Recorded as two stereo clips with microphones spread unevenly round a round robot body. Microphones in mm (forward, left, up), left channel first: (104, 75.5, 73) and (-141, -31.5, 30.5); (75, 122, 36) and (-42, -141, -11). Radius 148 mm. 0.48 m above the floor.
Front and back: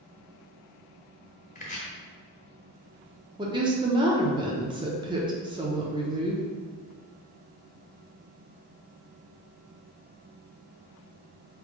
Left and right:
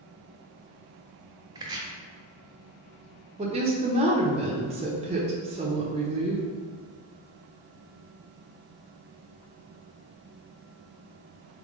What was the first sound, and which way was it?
Chopping, 45° right.